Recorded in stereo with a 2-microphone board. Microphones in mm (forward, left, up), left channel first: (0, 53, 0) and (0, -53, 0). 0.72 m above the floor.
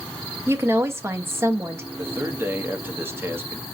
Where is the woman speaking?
25° right (ahead or behind), 0.5 m.